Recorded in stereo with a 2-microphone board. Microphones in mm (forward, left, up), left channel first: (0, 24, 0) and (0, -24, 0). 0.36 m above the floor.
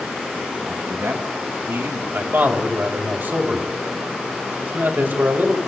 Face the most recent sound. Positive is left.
turn(degrees=-45)  # may be behind; listen again after turning